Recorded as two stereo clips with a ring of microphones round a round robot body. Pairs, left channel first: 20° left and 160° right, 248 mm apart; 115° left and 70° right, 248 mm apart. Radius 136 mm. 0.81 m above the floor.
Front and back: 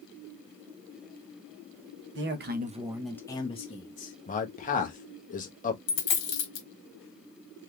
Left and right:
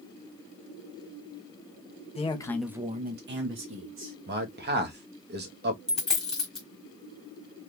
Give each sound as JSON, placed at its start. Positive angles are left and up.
{"t": 2.1, "sound": "a man speaking", "azimuth_deg": 175, "distance_m": 1.1}
{"t": 4.3, "sound": "a man speaking", "azimuth_deg": -30, "distance_m": 1.1}
{"t": 5.9, "sound": "a dropped coin", "azimuth_deg": 25, "distance_m": 1.3}